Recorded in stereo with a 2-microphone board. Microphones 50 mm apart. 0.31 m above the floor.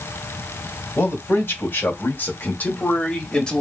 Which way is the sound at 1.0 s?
60° left (ahead or behind).